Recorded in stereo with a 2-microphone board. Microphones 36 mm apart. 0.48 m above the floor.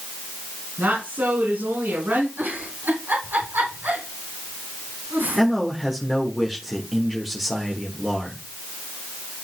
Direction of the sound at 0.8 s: 80° right.